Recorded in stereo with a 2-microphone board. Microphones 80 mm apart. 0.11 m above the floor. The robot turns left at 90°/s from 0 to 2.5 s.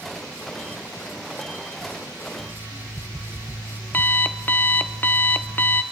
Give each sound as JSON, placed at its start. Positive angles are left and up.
{"t": 2.4, "sound": "an alarm clock", "side_deg": 15, "distance_m": 0.8}